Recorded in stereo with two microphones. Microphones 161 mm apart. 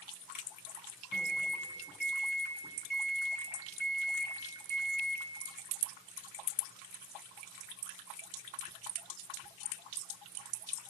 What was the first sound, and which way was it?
A microwave, 75° left (ahead or behind).